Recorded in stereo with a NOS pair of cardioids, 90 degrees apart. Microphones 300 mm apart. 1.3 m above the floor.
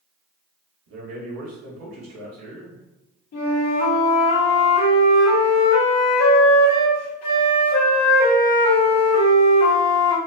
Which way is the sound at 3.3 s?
60° left.